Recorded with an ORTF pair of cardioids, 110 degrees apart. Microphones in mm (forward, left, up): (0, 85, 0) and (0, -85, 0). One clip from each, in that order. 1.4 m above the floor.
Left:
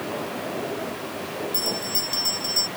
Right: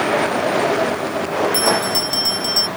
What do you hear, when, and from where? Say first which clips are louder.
1.5 s a bell: right 6 dB; 25° right